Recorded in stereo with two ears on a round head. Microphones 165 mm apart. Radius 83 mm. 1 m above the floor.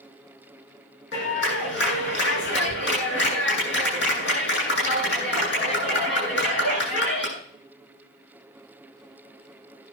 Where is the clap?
60° left (ahead or behind), 9.5 m.